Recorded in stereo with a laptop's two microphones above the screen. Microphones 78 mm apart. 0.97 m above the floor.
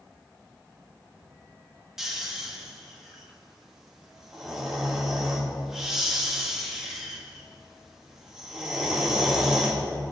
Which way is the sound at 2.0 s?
5° right (ahead or behind).